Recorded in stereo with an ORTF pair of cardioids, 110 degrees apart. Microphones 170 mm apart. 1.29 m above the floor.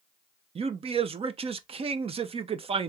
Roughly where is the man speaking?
Ahead right.